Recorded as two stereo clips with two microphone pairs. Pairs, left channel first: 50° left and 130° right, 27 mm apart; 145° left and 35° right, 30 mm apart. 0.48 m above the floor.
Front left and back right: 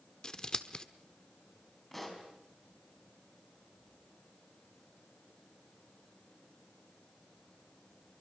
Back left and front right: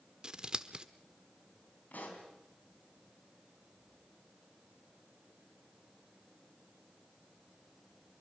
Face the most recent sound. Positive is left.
turn(degrees=130)